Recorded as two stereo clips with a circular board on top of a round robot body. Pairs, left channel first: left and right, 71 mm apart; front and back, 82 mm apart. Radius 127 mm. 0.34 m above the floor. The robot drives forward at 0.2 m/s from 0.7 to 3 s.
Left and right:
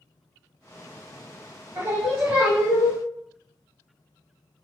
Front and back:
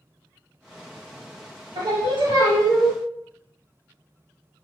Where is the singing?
155° right, 0.9 m; by 3.0 s 160° right, 1.1 m.